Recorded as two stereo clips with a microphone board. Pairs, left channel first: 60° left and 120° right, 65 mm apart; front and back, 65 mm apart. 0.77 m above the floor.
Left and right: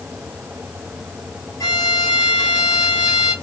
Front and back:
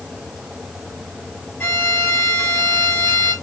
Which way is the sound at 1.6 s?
50° left.